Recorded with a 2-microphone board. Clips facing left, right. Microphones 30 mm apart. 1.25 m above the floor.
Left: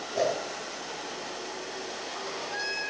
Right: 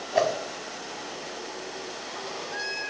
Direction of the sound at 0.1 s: 75° right (ahead or behind).